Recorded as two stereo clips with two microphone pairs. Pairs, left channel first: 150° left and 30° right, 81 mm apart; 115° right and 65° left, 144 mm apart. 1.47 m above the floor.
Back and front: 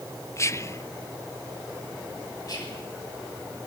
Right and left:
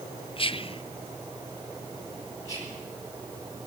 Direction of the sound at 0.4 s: 160° right.